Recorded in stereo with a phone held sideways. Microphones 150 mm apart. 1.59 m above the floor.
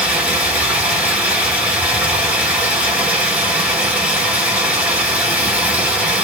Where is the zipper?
No zipper in this recording.